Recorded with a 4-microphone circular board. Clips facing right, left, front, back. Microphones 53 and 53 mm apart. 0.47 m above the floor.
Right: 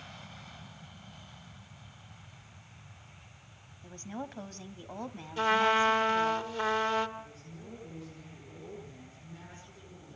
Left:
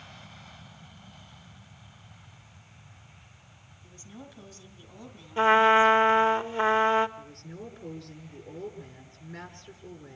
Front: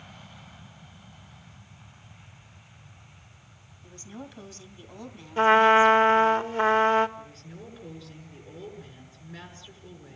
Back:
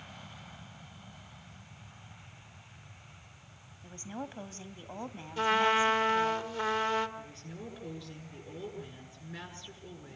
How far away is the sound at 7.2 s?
About 7.5 m.